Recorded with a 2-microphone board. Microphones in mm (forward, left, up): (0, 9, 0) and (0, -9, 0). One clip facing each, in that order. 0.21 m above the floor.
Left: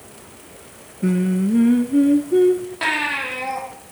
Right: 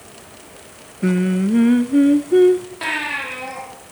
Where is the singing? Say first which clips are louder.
Right 1 dB; 25° right (ahead or behind), 0.9 m.